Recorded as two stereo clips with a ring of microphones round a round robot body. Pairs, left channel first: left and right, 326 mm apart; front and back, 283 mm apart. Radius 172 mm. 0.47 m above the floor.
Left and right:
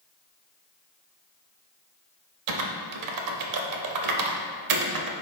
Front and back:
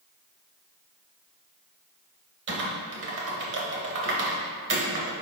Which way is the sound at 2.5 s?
125° right.